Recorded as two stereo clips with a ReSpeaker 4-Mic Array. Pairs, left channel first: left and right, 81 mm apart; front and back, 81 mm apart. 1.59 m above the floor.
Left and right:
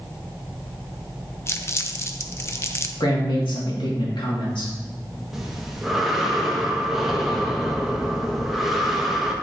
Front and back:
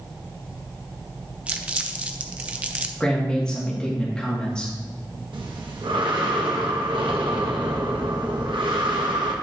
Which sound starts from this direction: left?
A man speaking, at 3.0 s.